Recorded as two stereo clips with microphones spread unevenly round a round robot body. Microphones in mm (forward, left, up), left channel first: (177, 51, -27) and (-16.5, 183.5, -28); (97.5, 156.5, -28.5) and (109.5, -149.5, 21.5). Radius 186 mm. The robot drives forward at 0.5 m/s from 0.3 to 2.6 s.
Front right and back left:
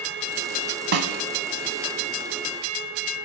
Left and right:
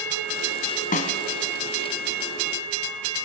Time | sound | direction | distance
0.9 | a snare drum | 165° left | 1.1 m